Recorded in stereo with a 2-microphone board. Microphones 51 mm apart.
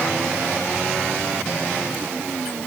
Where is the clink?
No clink in this recording.